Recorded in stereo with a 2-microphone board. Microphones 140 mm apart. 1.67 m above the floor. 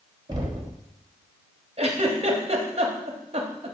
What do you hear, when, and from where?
0.3 s knocking: 30° right (ahead or behind), 0.8 m
1.8 s a giggle: 45° right (ahead or behind), 0.7 m